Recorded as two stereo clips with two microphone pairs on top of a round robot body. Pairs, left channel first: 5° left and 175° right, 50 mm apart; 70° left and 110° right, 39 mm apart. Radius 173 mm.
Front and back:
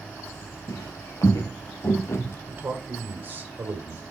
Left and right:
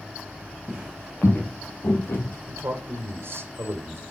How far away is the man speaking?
About 2.0 m.